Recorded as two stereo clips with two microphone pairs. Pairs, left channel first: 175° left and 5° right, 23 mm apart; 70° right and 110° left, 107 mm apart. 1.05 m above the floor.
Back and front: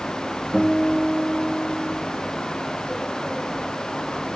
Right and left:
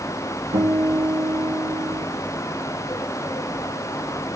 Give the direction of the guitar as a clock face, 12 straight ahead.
9 o'clock.